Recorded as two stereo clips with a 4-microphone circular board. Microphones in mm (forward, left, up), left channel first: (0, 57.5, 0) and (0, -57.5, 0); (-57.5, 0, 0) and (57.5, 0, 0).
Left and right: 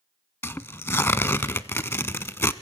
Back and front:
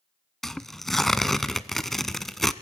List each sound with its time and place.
0.4 s tearing paper: 100° left, 0.6 m